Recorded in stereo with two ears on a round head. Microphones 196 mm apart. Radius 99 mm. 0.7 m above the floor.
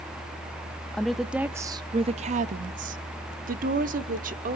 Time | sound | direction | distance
0.9 | a woman speaking | 5° left (ahead or behind) | 0.7 m